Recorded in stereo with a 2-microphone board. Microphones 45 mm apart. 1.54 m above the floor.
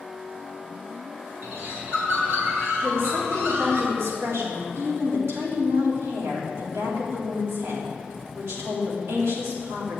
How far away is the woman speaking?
About 3.5 m.